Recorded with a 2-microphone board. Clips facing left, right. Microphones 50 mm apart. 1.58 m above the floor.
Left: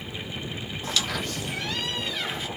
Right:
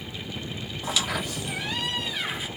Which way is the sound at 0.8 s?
10° right (ahead or behind).